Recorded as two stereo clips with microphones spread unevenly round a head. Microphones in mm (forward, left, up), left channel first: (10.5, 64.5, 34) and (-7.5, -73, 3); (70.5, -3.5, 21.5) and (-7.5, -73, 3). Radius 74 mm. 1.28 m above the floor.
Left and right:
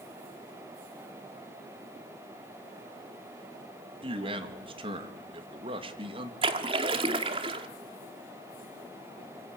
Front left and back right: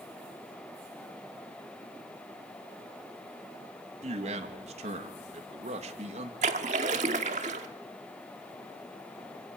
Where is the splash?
155° right, 1.2 m.